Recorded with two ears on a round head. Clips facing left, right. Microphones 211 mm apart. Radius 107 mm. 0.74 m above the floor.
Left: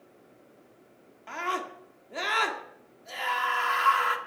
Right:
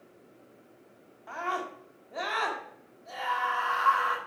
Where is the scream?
35° left (ahead or behind), 1.9 m.